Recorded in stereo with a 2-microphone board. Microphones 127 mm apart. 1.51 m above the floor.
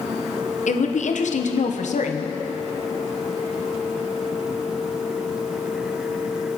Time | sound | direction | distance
0.7 | a woman speaking | 75° left (ahead or behind) | 0.9 m